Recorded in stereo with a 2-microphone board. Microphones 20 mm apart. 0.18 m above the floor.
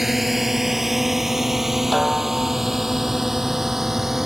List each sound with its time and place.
0.0 s a drone: 10° right (ahead or behind); by 4.2 s 15° right (ahead or behind)
1.9 s a snare drum: 10° left (ahead or behind)